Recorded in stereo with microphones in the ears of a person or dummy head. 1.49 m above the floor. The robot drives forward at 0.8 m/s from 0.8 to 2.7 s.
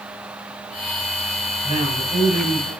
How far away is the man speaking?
About 5 m.